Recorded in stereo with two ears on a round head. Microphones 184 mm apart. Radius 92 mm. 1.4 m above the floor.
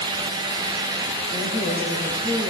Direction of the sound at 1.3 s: 30° right (ahead or behind).